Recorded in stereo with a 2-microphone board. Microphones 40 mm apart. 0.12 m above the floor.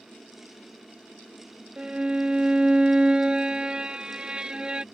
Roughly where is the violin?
Right.